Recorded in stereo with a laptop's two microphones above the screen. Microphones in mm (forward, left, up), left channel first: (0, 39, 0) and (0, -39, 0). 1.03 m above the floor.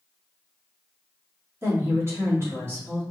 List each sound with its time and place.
1.6 s a woman speaking: 35° right (ahead or behind), 1.8 m